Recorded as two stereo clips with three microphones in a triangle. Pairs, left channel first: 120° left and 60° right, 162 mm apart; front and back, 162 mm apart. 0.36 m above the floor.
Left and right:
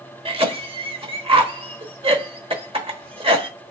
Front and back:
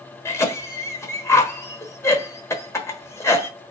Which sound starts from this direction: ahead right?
A cough, at 0.2 s.